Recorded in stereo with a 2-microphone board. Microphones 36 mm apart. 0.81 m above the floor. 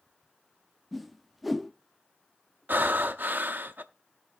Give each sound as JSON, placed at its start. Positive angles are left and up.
{"t": 0.9, "sound": "a whoosh", "side_deg": 0, "distance_m": 0.6}
{"t": 2.7, "sound": "breathing", "side_deg": -65, "distance_m": 0.7}